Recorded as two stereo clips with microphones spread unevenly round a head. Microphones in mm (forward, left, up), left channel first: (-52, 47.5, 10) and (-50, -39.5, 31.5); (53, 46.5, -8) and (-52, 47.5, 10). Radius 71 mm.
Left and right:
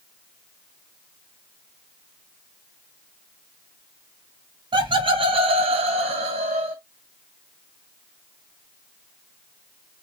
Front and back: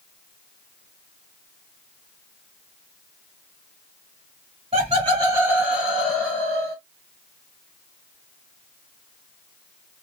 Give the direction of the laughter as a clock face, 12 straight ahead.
4 o'clock.